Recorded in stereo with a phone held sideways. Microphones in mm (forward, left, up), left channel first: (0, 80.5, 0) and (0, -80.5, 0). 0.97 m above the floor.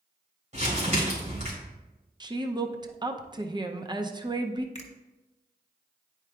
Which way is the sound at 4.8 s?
45° left (ahead or behind).